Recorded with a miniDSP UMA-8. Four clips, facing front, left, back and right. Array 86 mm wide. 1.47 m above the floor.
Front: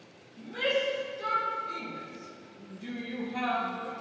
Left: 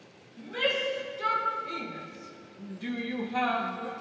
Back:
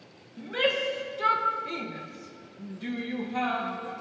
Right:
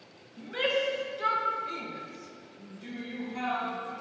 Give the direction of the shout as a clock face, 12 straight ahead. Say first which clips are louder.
Right 1 dB, back 2 dB; 5 o'clock.